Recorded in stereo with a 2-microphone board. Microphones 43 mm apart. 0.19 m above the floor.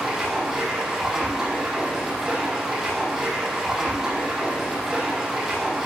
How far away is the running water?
About 5 m.